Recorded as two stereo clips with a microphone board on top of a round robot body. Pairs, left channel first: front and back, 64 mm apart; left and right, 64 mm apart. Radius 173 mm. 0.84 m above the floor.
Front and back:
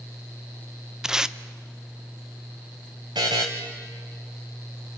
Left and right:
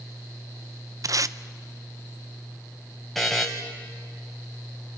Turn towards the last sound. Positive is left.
turn(degrees=180)